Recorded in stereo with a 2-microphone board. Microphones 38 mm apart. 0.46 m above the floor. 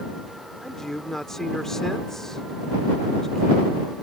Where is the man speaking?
10° left (ahead or behind).